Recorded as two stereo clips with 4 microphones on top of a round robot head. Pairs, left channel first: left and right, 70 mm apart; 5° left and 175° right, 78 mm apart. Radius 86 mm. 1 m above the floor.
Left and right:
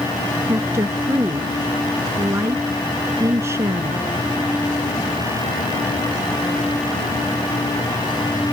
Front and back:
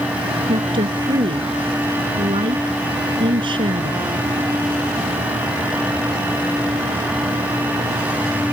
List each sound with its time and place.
0.5 s a woman speaking: 150° right